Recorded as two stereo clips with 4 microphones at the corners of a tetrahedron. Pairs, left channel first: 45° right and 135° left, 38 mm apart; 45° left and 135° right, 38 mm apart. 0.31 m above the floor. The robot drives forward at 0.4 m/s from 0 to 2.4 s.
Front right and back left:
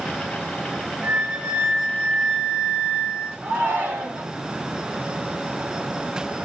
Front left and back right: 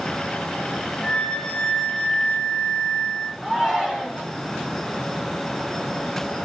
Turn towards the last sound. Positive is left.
turn(degrees=150)